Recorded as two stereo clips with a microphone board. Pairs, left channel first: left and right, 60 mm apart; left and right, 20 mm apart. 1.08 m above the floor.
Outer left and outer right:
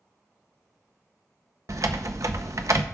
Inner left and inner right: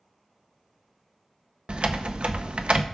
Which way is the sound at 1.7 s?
60° right (ahead or behind).